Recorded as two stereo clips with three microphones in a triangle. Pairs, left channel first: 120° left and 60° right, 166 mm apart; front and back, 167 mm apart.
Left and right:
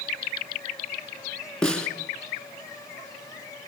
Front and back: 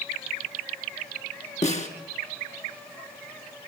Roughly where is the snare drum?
Ahead left.